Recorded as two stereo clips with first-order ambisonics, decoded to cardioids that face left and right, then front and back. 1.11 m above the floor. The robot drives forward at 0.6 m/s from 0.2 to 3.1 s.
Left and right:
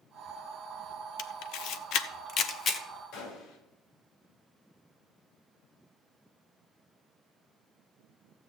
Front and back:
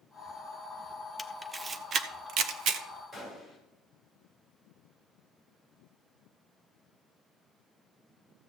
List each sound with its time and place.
1.2 s a camera shutter: 80° left, 0.7 m; by 2.9 s 150° left, 1.1 m
3.1 s a gunshot: 100° left, 3 m